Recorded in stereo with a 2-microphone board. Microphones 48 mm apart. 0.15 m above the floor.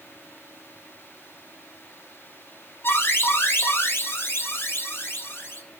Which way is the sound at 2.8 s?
55° left (ahead or behind).